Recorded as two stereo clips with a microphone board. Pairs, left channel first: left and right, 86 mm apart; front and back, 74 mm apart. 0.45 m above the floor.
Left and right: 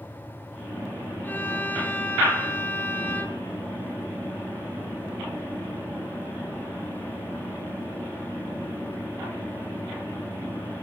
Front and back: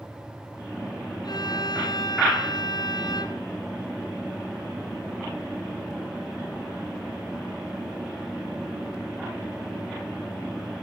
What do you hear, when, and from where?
1.2 s a violin: 20° left, 2.5 m